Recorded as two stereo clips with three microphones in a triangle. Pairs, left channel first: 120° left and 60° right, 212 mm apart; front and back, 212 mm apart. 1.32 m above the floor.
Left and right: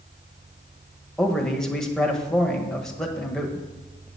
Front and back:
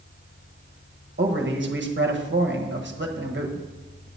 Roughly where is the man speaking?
Behind right.